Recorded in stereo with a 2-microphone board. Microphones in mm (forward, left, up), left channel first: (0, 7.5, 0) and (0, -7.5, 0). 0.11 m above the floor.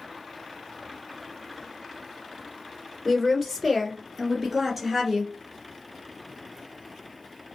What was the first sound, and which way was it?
A woman speaking, 5° left (ahead or behind).